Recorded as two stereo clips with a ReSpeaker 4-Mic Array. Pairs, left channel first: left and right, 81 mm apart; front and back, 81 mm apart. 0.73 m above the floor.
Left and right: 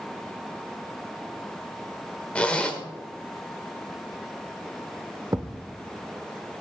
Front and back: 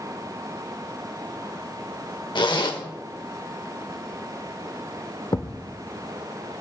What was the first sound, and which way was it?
A zipper, 15° left.